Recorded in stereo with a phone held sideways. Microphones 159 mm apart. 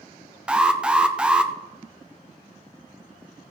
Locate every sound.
0.5 s an alarm: 5° right (ahead or behind), 0.7 m